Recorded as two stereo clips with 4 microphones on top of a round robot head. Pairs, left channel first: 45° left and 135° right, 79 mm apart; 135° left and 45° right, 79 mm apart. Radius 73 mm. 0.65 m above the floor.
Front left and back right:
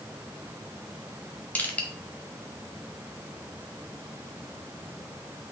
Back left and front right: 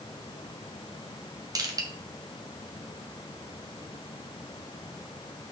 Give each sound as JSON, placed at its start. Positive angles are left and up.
{"t": 1.6, "sound": "crushing", "azimuth_deg": -20, "distance_m": 1.7}